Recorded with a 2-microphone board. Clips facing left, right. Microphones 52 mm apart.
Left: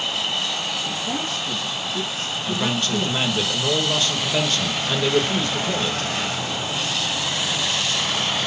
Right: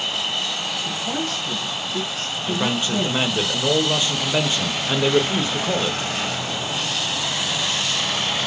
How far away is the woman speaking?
About 3.5 m.